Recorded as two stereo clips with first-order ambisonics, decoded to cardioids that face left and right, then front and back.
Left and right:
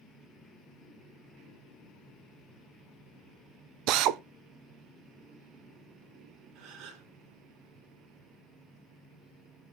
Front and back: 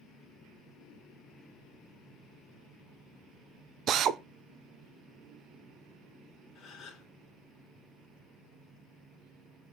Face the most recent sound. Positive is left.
turn(degrees=-60)